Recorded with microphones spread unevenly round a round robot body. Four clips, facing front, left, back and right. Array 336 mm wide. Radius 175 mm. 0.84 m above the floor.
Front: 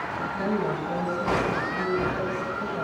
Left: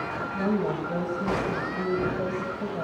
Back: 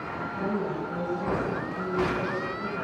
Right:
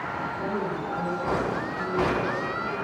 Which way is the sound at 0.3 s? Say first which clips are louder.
Left 6 dB, front 2 dB; 40° left.